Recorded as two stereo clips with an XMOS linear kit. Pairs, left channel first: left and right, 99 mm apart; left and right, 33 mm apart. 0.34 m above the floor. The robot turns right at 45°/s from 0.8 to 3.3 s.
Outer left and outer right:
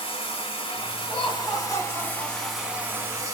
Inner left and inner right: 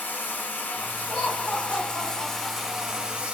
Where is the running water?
105° left, 1.1 m; by 3.3 s 145° right, 1.1 m.